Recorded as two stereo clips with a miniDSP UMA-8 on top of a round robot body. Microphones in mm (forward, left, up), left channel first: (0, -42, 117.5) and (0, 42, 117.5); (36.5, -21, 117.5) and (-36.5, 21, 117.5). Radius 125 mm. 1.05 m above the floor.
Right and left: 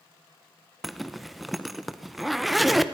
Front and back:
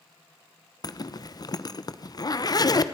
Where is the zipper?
Straight ahead, 1.1 m.